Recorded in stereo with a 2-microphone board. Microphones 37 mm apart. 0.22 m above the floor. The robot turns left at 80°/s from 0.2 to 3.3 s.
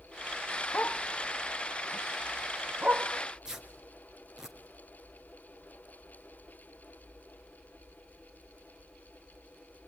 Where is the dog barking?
55° left (ahead or behind), 2 m; by 3.1 s 60° right (ahead or behind), 2 m.